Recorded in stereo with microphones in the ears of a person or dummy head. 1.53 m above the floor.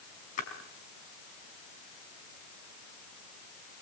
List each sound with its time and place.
0.4 s a splash: 45° left (ahead or behind), 5 m